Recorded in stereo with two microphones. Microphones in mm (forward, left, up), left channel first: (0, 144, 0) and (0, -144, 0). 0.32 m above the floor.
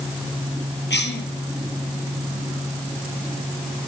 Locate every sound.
0.9 s a cough: 35° left (ahead or behind), 6 m